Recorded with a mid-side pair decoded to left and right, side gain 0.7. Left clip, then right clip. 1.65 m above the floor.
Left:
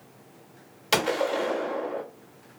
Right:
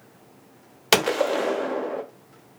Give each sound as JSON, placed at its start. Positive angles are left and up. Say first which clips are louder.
{"t": 0.9, "sound": "a gunshot", "louder": "right 4 dB", "azimuth_deg": -40, "distance_m": 0.7}